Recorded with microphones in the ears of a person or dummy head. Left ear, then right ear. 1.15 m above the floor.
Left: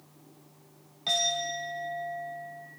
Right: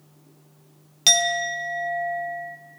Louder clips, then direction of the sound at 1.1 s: Right 8 dB; 75° right (ahead or behind).